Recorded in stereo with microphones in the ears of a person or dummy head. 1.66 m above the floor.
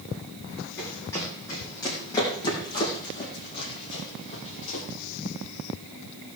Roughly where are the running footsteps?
Centre.